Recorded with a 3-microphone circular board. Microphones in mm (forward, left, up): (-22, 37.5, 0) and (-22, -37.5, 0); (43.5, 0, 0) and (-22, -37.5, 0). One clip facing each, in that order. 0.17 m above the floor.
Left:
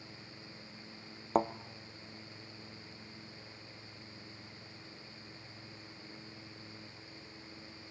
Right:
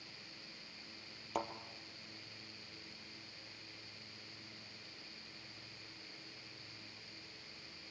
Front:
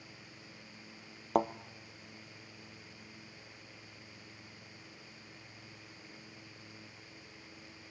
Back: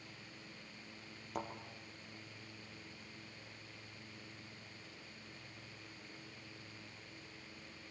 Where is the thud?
45° left, 0.6 m.